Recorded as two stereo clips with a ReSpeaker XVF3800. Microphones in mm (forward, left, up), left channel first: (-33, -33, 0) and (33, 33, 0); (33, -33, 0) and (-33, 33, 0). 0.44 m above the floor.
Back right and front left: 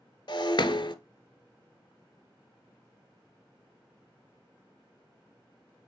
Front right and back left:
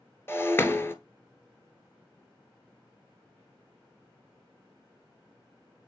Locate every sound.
0.3 s breaking glass: 105° right, 0.8 m